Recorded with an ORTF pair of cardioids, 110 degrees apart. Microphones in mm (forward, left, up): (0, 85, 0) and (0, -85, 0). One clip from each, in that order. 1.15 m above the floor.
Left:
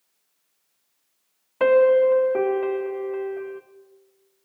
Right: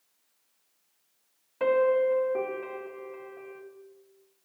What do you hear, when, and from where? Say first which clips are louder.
1.6 s a piano: left 7 dB; 40° left, 0.7 m